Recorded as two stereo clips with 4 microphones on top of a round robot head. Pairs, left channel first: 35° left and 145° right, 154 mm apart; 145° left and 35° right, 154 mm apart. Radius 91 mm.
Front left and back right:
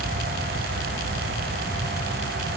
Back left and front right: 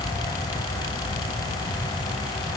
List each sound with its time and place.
Only background noise.